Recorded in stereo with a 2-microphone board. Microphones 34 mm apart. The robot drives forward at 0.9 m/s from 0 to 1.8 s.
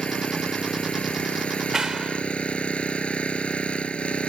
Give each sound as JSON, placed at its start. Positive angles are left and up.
{"t": 0.0, "sound": "an engine running", "side_deg": 30}
{"t": 1.7, "sound": "a clap", "side_deg": -20}